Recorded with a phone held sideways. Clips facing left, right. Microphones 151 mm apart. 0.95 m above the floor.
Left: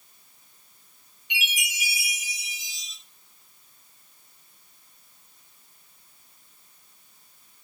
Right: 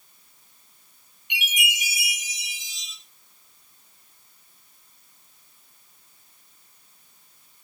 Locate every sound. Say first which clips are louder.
1.3 s a chime: right 3 dB; 60° right (ahead or behind), 7 m